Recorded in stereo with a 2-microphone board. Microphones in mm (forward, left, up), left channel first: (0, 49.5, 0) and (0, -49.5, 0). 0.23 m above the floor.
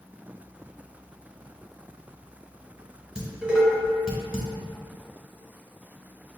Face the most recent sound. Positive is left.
turn(degrees=-10)  # may be behind; listen again after turning